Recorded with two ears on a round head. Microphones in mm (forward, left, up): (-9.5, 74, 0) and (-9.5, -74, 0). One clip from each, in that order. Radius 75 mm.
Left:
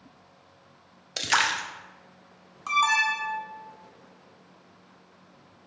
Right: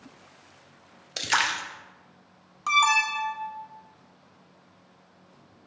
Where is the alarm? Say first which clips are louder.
Right 1 dB; 25° right (ahead or behind), 0.6 m.